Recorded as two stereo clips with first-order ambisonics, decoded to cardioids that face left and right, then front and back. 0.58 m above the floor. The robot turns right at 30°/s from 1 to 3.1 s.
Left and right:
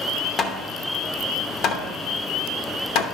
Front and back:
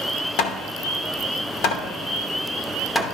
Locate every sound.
0.4 s hammering: 20° left, 0.8 m; by 3.0 s 80° left, 0.8 m